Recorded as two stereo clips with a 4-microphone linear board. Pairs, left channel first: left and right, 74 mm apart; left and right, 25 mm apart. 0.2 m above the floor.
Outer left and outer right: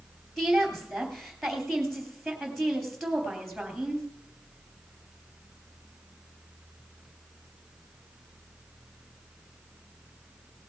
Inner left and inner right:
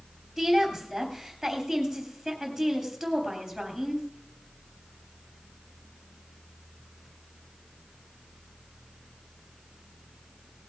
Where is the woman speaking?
Centre (ahead or behind), 3.5 m.